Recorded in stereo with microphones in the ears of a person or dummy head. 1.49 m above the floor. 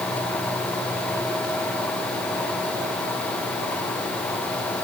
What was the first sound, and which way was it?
Only background noise.